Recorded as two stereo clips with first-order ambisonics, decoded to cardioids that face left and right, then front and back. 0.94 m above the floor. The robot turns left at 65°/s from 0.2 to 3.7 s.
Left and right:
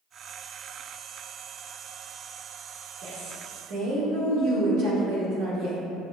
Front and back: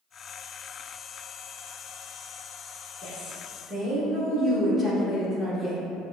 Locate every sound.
3.0 s a woman speaking: 55° right, 1.3 m; by 5.9 s 100° right, 1.3 m